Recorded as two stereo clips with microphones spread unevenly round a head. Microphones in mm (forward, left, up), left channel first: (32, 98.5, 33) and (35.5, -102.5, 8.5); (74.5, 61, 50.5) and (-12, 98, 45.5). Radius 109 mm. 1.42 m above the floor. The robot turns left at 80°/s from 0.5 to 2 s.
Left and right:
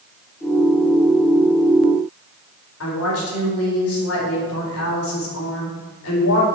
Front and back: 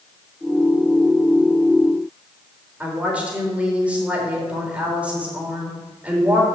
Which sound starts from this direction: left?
A woman speaking, at 2.8 s.